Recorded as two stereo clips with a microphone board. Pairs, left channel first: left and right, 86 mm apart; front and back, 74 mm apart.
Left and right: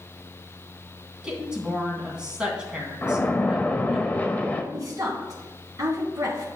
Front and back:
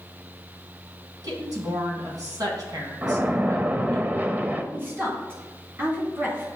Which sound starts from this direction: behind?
A woman speaking, at 1.2 s.